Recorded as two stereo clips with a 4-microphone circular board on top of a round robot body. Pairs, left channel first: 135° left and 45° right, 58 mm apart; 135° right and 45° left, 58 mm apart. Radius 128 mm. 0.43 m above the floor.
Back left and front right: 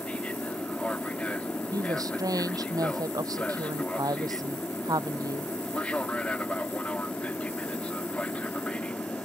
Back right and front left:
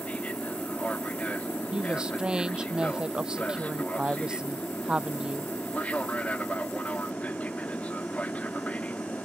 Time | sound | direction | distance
0.0 | an aircraft | 175° right | ?
1.7 | a woman speaking | 30° right | ?